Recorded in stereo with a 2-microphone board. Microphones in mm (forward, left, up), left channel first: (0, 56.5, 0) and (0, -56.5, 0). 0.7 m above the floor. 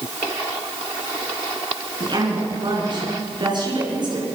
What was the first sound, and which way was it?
A woman speaking, 40° right (ahead or behind).